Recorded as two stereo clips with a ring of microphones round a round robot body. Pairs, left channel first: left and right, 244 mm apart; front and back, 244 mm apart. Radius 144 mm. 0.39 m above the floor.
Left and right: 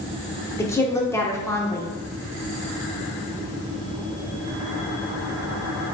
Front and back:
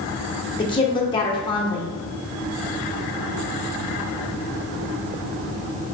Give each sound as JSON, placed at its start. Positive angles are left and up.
{"t": 0.6, "sound": "a woman speaking", "azimuth_deg": 30, "distance_m": 0.8}